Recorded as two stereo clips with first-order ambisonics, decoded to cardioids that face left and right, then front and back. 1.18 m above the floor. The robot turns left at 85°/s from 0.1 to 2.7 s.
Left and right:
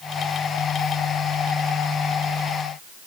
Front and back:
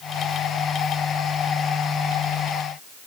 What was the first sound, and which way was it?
Only background noise.